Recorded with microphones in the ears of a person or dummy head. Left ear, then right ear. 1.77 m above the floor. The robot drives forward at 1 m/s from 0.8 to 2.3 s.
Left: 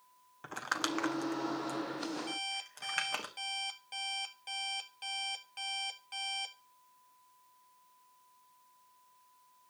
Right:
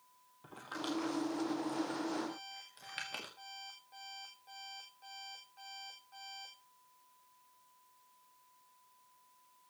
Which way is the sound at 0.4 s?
60° left (ahead or behind).